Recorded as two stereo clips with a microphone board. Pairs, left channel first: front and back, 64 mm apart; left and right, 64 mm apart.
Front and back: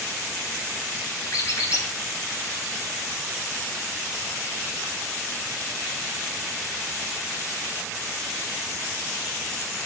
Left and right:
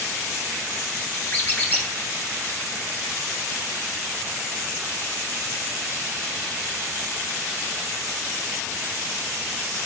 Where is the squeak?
35° left, 1.1 m.